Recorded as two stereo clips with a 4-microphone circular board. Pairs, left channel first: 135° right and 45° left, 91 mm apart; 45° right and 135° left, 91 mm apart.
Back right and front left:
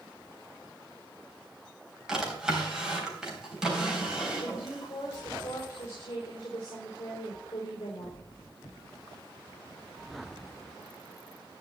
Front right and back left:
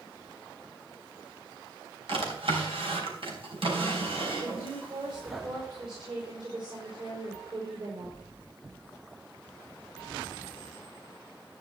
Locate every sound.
2.1 s a drawer: 130° left, 3.5 m
4.4 s a woman speaking: 170° left, 5 m